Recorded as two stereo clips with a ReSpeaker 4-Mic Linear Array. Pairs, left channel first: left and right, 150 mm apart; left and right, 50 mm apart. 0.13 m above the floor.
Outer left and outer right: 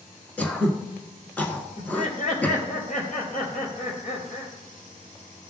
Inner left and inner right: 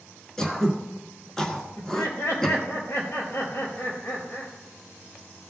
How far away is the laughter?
About 3.5 m.